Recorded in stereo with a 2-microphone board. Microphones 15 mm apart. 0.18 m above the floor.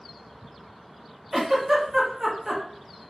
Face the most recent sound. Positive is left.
turn(degrees=-25)  # may be behind; listen again after turning